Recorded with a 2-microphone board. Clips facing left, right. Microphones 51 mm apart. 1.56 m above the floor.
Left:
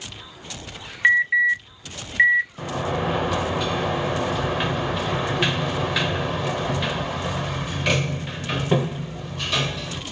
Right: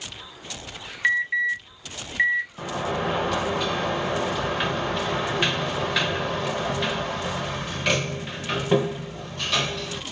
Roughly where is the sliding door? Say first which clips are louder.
Left 1 dB; centre.